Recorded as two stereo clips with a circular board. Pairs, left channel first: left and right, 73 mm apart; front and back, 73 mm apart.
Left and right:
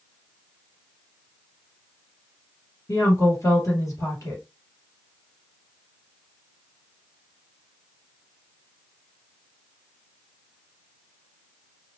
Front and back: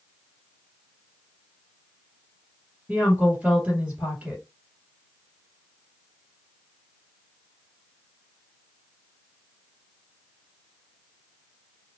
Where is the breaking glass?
No breaking glass in this recording.